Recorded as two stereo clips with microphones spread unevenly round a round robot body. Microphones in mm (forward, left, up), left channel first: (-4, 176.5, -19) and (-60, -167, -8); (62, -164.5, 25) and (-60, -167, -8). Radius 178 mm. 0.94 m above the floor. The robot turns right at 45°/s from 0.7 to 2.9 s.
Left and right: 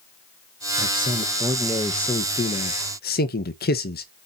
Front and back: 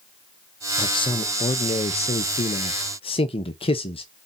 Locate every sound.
0.8 s a man speaking: 55° right, 1.0 m; by 4.1 s 40° left, 1.0 m